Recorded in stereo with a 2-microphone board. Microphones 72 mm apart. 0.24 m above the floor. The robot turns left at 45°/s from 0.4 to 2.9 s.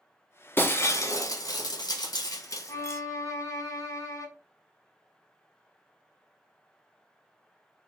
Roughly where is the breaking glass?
Behind left.